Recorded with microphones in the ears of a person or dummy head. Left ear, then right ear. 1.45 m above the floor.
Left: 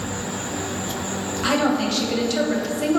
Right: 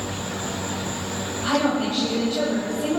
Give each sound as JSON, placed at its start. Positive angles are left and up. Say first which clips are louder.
{"t": 1.4, "sound": "a woman speaking", "louder": "left 2 dB", "side_deg": 65, "distance_m": 1.5}